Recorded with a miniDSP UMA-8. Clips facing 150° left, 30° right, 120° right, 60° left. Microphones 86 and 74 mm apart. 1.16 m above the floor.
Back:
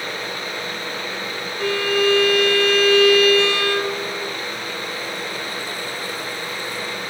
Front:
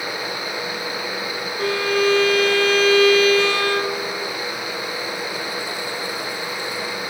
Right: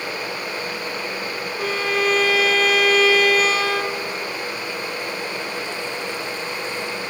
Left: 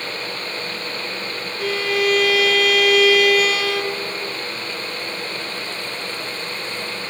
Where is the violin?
75° right, 1.5 m.